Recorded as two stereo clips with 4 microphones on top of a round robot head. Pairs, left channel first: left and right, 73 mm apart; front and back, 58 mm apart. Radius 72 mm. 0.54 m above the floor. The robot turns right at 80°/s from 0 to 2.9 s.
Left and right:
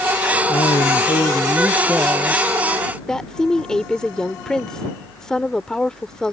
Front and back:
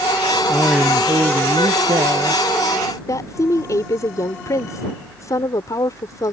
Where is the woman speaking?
10° left.